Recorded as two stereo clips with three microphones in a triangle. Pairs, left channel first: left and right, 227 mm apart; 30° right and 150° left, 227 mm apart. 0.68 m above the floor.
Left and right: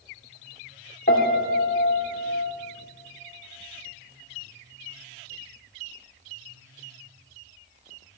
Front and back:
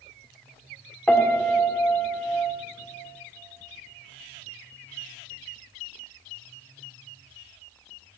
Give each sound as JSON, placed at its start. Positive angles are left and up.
{"t": 1.1, "sound": "a piano", "azimuth_deg": 55, "distance_m": 1.9}